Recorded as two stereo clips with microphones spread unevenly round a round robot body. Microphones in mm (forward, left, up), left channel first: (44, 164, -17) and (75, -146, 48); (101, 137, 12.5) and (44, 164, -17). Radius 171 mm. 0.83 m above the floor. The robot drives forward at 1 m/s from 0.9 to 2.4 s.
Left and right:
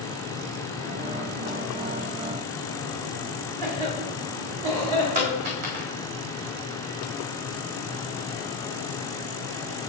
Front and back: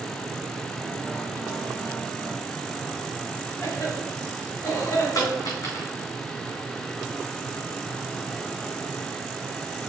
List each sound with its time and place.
3.6 s a cough: 115° right, 2.5 m
5.2 s a dropped coin: 70° right, 4 m